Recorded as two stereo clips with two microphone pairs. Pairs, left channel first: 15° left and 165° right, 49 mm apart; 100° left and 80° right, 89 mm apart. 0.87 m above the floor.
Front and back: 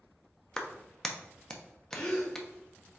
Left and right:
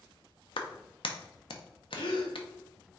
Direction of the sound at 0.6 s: 95° left.